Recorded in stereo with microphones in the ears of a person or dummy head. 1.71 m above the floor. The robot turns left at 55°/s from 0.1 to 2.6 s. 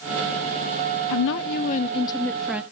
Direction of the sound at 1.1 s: 75° left.